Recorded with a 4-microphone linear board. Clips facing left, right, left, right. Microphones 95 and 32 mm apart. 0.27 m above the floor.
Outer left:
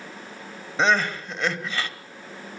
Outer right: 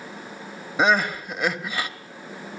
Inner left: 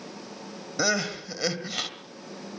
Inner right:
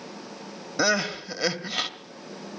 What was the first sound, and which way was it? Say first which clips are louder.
Crying: outer right 1 dB, inner right 3 dB; 10° right (ahead or behind).